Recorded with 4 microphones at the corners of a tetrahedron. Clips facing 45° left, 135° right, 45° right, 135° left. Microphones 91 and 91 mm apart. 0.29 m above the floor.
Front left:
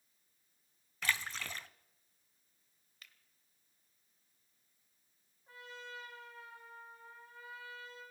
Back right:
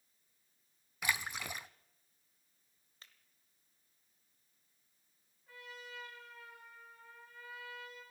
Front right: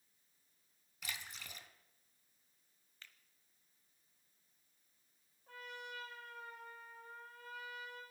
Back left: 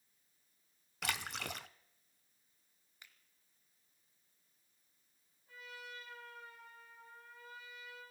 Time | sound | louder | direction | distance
1.0 | a splash | even, back left 9 dB | 150° left | 0.5 m
3.0 | a finger snap | even, front right 1 dB | 165° right | 1.3 m
5.5 | a trumpet | front left 2 dB, front right 2 dB | 20° right | 5.5 m